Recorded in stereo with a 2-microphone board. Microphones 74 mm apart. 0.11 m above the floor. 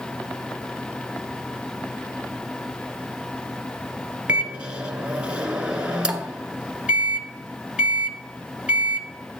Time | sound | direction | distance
4.3 | a microwave | 15° right (ahead or behind) | 0.9 m